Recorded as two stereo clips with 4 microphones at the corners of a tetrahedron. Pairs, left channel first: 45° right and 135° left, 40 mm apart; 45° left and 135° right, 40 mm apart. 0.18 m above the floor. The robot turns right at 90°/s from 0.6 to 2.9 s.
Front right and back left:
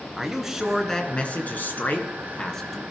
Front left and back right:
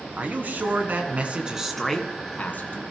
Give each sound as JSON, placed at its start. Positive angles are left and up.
{"t": 0.2, "sound": "a man speaking", "azimuth_deg": -150, "distance_m": 2.5}